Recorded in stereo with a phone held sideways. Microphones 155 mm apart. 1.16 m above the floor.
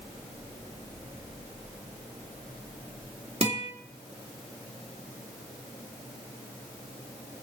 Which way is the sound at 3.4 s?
45° right (ahead or behind).